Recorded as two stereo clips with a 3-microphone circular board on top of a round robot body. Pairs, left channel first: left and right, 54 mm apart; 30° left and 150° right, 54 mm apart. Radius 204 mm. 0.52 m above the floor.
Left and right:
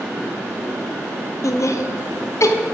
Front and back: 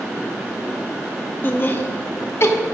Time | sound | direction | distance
1.4 | laughter | 80° left | 1.4 m